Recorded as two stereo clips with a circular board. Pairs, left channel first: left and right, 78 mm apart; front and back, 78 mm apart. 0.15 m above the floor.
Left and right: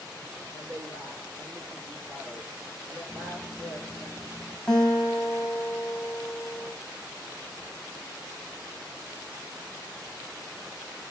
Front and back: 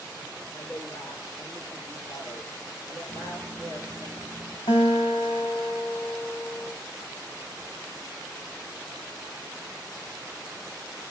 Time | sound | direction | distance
0.5 | a woman speaking | 75° right | 3 m
3.1 | a microwave | 150° right | 2.5 m
4.7 | a guitar | 10° left | 2 m